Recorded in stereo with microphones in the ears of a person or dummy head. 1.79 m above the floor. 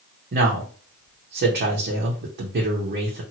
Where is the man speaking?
55° right (ahead or behind), 0.8 m.